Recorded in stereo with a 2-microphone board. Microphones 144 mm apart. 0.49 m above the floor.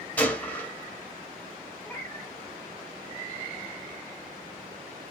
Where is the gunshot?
10° left (ahead or behind), 1.4 m.